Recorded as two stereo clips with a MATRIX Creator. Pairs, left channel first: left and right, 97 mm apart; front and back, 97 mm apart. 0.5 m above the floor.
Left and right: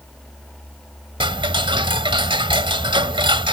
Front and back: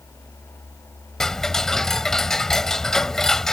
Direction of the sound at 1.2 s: 85° right.